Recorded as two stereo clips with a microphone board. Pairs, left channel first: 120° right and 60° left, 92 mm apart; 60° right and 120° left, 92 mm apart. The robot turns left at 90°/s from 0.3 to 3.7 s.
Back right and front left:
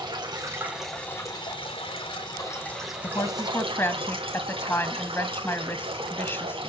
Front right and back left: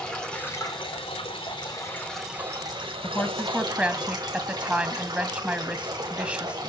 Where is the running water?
20° left, 8.5 m; by 6.7 s 75° left, 8.5 m.